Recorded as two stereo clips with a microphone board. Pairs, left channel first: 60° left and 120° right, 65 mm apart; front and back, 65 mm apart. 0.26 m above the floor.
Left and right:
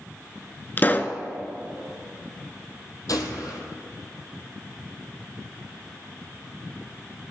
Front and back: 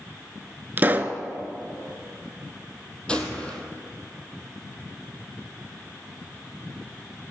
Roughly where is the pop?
Behind left.